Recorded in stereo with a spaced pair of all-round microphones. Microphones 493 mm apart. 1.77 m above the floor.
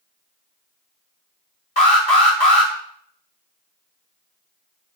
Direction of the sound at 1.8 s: 60° left (ahead or behind).